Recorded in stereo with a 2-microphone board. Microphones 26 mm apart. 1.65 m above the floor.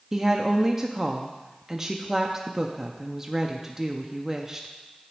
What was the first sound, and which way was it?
A woman speaking, 10° right (ahead or behind).